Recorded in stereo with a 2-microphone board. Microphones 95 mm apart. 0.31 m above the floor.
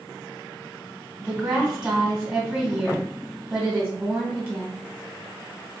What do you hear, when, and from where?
1.2 s a woman speaking: 10° right (ahead or behind), 2 m